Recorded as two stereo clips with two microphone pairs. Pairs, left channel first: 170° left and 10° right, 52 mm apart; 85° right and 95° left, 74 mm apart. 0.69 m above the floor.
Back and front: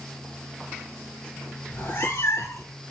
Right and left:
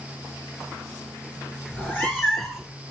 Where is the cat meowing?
155° right, 2.5 m; by 2.7 s 175° left, 1.9 m.